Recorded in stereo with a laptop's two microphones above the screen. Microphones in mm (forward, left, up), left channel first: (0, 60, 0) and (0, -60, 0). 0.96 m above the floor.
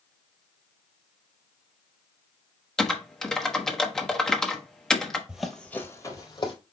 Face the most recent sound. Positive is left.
turn(degrees=45)  # may be behind; listen again after turning